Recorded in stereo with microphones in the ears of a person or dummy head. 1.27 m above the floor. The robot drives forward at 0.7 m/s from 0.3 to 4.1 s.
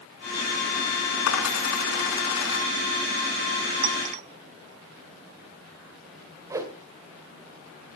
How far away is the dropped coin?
About 4.5 m.